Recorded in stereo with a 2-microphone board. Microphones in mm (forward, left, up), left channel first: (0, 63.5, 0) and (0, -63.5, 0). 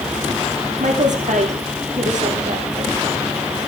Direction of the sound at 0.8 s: 70° right (ahead or behind).